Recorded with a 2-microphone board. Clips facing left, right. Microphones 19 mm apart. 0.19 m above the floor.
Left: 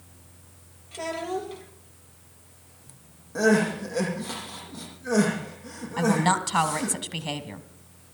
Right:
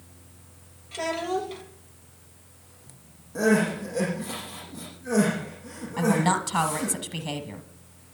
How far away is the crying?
About 7 m.